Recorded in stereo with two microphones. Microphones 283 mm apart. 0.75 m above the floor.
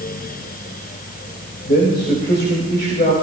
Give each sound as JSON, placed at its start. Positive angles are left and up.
{"t": 1.7, "sound": "a man speaking", "side_deg": 35, "distance_m": 3.5}